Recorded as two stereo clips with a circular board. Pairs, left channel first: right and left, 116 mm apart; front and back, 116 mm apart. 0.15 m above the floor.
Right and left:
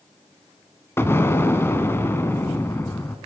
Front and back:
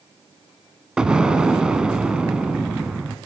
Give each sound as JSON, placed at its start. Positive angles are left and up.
{"t": 1.0, "sound": "an explosion", "azimuth_deg": -110, "distance_m": 1.6}